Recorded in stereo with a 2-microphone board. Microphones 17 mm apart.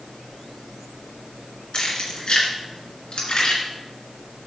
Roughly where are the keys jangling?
Left.